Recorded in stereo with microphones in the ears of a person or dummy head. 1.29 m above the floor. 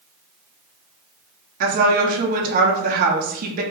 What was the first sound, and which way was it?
A woman speaking, 45° right (ahead or behind).